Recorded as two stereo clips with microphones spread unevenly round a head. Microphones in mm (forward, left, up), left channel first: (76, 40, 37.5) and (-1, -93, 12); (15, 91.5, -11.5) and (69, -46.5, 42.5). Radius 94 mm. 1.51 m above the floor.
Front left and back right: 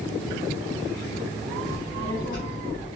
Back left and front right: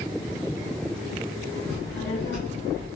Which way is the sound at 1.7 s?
130° left.